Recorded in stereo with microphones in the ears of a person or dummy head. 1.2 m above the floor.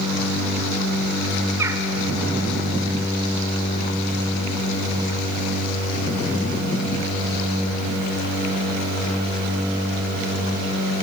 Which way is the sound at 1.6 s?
15° right (ahead or behind).